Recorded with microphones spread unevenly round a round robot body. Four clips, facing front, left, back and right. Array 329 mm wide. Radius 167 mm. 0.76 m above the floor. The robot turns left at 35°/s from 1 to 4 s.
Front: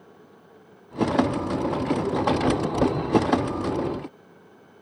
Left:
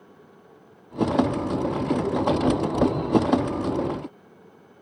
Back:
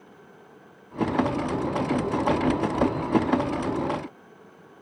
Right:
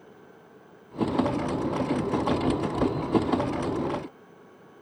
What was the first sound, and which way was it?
Only background noise.